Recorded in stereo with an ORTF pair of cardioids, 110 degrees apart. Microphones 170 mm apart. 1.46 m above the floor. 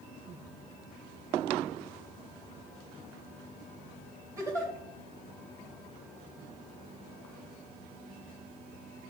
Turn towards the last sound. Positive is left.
turn(degrees=-15)